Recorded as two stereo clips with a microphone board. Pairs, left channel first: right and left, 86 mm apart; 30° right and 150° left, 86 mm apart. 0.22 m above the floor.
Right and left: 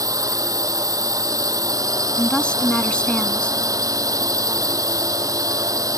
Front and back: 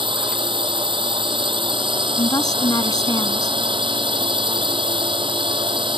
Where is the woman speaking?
15° right.